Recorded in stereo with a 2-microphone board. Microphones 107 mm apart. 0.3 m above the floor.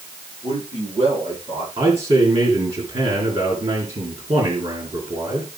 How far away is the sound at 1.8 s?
About 3 m.